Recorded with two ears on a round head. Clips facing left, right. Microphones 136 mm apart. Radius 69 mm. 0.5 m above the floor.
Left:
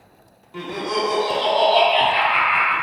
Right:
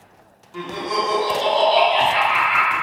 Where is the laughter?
10° left (ahead or behind), 0.8 m; by 2.7 s 30° right (ahead or behind), 1.4 m.